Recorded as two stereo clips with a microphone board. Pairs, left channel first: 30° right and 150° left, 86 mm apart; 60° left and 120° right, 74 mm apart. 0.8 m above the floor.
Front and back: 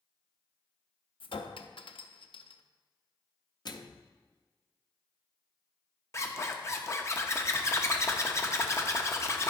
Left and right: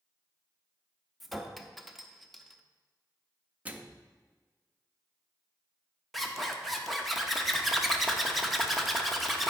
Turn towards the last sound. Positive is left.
turn(degrees=-30)